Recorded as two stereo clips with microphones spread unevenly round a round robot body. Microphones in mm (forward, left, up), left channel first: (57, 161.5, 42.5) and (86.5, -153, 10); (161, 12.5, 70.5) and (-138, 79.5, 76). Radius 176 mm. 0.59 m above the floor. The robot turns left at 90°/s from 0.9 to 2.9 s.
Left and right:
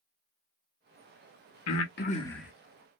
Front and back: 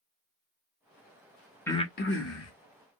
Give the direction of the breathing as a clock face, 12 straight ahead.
10 o'clock.